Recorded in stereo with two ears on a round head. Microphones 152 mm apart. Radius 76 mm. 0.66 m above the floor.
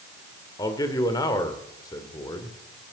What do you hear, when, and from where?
0.6 s a man speaking: 20° left (ahead or behind), 2 m